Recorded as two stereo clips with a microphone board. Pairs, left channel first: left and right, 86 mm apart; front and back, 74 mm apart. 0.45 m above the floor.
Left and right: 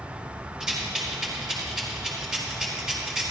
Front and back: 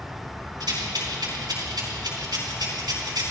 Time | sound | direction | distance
0.6 | a rattle | 175° right | 4 m